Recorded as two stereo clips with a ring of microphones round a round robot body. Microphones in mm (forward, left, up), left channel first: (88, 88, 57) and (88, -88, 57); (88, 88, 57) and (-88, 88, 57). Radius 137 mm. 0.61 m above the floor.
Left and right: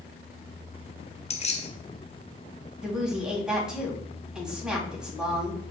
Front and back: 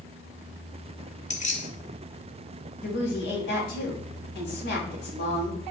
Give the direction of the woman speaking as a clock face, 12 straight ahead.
12 o'clock.